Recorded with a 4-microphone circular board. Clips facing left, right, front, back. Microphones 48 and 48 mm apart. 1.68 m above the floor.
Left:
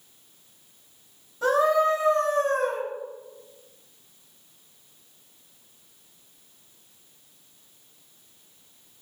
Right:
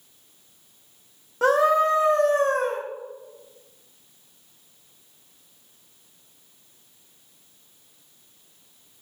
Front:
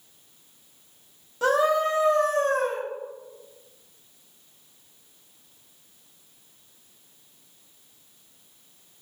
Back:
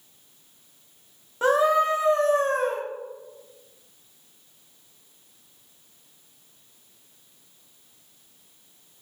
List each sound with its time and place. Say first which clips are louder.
1.4 s a scream: right 2 dB, back 2 dB; 115° right, 0.6 m